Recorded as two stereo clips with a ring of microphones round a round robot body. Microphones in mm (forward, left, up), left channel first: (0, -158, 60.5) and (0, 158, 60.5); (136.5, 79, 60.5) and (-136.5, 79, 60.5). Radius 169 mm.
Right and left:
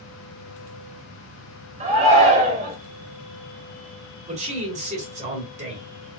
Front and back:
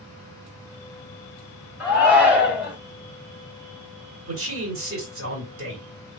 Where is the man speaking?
155° left, 2.5 m.